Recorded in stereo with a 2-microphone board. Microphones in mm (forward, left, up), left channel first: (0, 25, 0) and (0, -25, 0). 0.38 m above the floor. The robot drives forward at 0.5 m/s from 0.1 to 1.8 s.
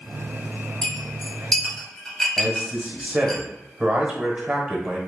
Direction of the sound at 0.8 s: 10° left (ahead or behind).